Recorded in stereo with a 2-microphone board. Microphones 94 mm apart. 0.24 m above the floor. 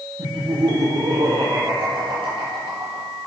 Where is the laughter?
70° right (ahead or behind), 8 m; by 3.1 s 80° right, 7.5 m.